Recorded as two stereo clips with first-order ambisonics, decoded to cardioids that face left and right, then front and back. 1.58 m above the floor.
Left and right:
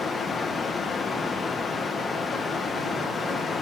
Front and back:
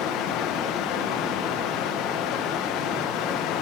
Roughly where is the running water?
Ahead.